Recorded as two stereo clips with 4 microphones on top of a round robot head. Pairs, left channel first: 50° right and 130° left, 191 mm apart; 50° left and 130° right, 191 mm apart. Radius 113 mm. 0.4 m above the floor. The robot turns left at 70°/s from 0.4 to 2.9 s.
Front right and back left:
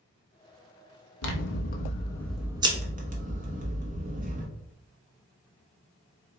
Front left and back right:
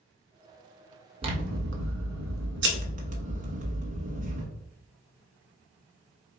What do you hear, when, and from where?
1.2 s scissors: 65° right, 1.0 m; by 4.5 s straight behind, 1.0 m